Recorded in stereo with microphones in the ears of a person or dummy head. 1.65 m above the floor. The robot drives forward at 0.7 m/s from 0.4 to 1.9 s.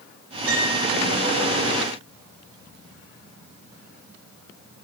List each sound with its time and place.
0.5 s a piano: 80° right, 1.3 m; by 0.8 s 85° right, 1.3 m